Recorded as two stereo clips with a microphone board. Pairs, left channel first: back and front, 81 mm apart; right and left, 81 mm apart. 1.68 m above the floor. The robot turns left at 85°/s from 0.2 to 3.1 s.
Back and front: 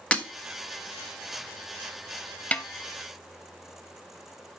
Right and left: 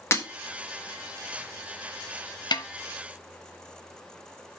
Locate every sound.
0.1 s breaking glass: 115° right, 1.2 m; by 0.2 s 120° right, 1.2 m
2.5 s a snare drum: 110° right, 0.6 m; by 2.7 s 120° right, 0.6 m